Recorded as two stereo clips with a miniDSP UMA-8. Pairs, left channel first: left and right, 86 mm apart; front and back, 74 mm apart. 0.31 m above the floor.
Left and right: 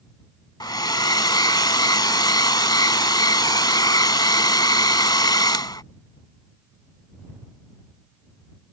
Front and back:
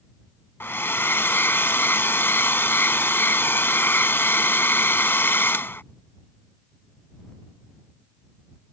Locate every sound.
0.6 s a hair dryer: 55° left